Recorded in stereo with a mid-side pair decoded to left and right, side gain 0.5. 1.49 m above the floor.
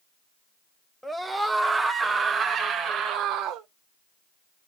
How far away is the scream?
About 1.4 m.